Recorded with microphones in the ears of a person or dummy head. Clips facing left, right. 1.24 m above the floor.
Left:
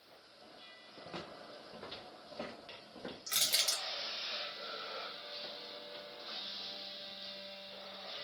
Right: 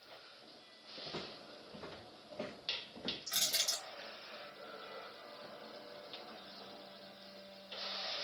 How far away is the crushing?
About 0.9 m.